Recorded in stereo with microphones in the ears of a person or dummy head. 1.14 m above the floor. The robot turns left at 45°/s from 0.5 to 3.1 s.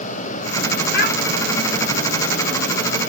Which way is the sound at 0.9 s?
60° left (ahead or behind).